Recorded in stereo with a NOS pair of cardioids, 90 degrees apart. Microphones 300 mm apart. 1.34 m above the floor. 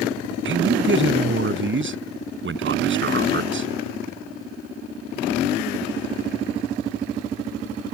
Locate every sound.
0.5 s a man speaking: 40° right